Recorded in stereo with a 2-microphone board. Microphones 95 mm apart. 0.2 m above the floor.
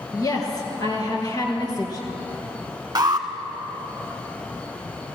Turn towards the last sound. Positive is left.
turn(degrees=-40)  # may be behind; listen again after turning